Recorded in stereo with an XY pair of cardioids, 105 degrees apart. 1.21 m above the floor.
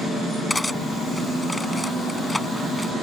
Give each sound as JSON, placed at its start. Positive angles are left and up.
{"t": 0.5, "sound": "cutlery clinking", "azimuth_deg": 10}